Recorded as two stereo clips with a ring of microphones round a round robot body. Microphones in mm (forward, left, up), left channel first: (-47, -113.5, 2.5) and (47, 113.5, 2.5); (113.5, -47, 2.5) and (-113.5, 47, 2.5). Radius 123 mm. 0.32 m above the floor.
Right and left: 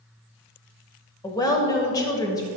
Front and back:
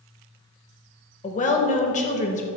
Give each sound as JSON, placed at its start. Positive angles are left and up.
{"t": 1.2, "sound": "a woman speaking", "azimuth_deg": -50, "distance_m": 0.9}